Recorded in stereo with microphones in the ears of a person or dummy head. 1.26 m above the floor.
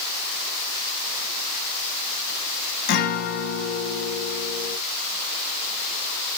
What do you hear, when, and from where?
2.9 s a guitar: 60° left (ahead or behind), 1.4 m